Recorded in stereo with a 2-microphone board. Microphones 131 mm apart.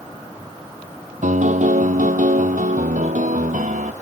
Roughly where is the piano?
Right.